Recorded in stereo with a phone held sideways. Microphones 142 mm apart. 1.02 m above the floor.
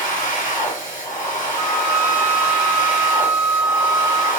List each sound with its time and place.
0.0 s a machine running: 70° left (ahead or behind), 1.5 m
1.6 s a flute: centre (ahead or behind), 1.2 m